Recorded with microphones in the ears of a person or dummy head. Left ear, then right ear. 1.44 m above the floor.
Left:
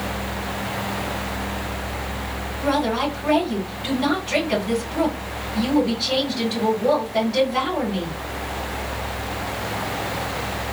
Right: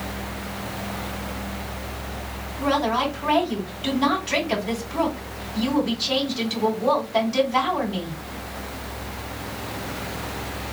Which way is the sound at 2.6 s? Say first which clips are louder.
Even; 45° right (ahead or behind).